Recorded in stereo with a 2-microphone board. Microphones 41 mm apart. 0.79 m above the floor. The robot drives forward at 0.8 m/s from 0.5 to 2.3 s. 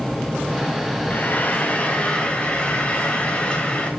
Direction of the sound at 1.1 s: 45° left (ahead or behind).